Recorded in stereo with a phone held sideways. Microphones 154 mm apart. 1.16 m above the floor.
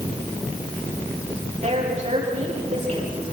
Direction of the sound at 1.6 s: 50° right (ahead or behind).